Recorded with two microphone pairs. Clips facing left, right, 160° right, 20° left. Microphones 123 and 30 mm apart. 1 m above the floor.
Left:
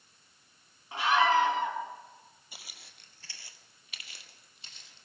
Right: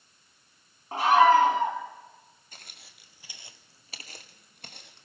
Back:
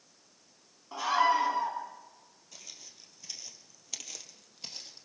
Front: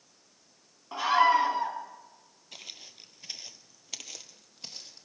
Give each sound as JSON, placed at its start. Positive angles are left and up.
{"t": 0.9, "sound": "a scream", "azimuth_deg": -40, "distance_m": 3.0}
{"t": 2.5, "sound": "footsteps", "azimuth_deg": 15, "distance_m": 1.6}